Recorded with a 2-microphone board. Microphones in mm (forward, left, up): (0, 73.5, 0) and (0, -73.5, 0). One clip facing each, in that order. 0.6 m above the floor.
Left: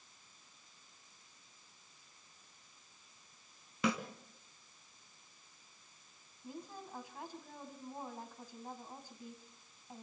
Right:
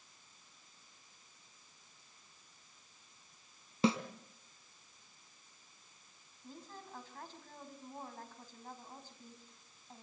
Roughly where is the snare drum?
Right.